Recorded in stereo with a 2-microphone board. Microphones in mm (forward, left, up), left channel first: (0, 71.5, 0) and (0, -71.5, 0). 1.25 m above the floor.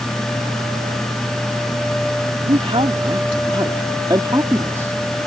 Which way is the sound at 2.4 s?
45° right (ahead or behind).